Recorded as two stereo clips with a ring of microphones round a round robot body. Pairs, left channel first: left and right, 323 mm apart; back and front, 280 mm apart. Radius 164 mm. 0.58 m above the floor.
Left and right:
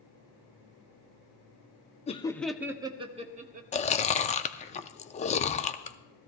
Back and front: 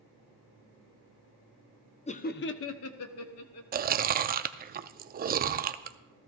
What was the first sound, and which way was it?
Laughter, 140° left.